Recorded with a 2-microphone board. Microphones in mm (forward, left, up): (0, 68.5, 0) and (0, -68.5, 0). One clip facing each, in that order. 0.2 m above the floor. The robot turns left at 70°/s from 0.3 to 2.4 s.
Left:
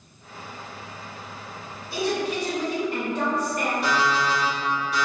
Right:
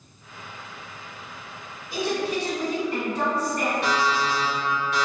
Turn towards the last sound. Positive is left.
turn(degrees=-75)  # may be behind; listen again after turning